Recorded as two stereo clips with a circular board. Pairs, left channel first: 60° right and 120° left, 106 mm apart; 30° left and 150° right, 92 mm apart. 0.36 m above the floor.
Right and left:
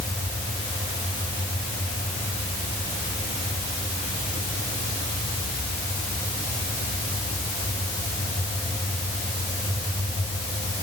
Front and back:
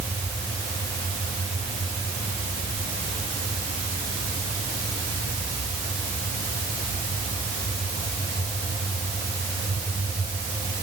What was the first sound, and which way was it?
Only background noise.